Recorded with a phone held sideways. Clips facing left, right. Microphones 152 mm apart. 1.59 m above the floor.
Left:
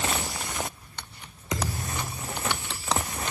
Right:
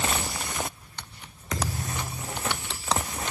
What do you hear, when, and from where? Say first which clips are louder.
1.5 s a thud: even; 15° left (ahead or behind), 1.2 m